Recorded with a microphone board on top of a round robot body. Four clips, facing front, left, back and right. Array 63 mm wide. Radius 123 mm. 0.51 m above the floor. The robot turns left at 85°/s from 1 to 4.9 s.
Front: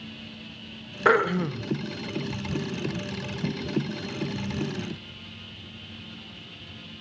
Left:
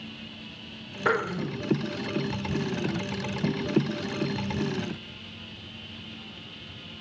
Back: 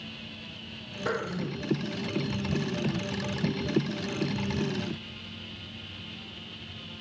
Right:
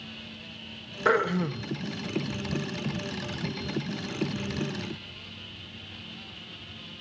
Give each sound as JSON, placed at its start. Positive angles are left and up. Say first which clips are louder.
{"t": 1.1, "sound": "throat clearing", "louder": "right 2 dB, front 10 dB", "azimuth_deg": 5, "distance_m": 1.9}